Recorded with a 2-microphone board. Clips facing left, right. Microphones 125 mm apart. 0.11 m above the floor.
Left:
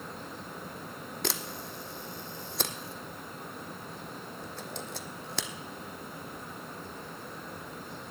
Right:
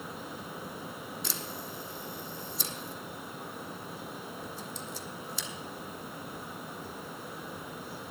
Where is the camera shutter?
70° left (ahead or behind), 0.8 m.